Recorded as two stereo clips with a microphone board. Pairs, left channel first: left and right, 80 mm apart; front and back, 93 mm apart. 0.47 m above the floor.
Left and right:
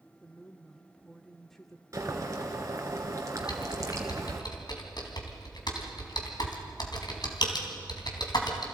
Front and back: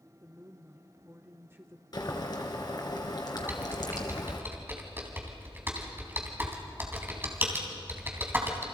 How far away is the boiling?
About 2 m.